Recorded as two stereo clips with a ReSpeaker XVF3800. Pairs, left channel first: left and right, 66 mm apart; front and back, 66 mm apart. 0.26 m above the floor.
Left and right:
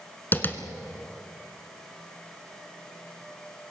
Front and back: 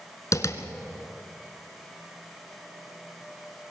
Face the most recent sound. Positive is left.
turn(degrees=35)